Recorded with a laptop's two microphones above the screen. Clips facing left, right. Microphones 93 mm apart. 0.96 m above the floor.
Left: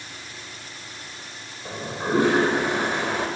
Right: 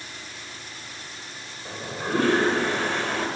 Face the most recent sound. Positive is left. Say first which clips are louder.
# left 3 dB
turn(degrees=15)  # may be behind; listen again after turning